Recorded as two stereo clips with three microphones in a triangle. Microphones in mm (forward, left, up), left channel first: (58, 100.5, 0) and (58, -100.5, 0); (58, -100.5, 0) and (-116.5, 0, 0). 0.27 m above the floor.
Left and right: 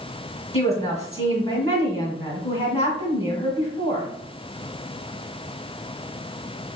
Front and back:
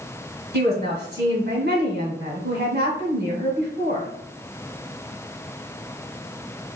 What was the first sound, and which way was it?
A woman speaking, 140° left.